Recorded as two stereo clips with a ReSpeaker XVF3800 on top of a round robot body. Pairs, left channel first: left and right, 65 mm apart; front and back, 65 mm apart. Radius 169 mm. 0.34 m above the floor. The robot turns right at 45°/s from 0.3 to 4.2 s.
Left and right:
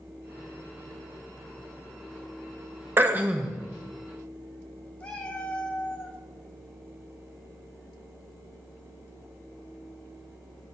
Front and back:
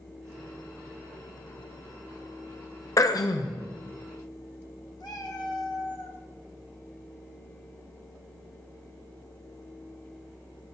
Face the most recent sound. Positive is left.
turn(degrees=15)